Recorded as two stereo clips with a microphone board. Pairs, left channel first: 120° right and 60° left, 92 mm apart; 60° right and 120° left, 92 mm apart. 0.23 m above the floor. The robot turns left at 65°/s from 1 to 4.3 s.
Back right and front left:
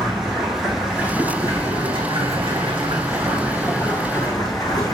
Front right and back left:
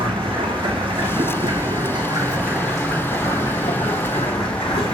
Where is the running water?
145° left, 3 m; by 5.0 s 70° right, 3 m.